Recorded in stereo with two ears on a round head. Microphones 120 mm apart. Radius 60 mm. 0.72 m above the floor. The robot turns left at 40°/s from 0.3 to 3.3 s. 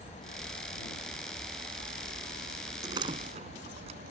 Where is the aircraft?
30° left (ahead or behind); by 4.1 s 70° right (ahead or behind).